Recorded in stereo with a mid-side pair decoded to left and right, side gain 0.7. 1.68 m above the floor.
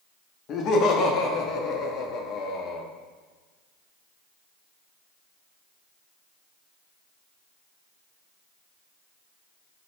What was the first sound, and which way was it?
Laughter, 50° left.